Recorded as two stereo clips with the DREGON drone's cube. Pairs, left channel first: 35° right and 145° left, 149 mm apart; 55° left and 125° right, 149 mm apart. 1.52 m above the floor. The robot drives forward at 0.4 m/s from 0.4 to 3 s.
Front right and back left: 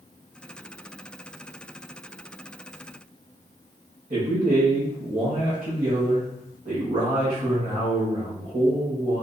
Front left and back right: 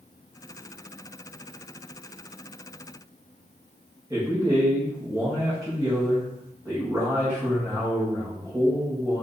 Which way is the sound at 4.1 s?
170° left.